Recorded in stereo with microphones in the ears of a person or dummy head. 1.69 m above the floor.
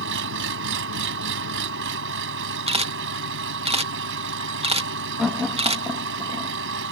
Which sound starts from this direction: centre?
Laughter, at 5.2 s.